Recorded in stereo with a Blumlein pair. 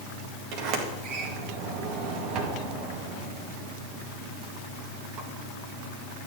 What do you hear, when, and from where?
0.5 s a sliding door: 40° right, 2.0 m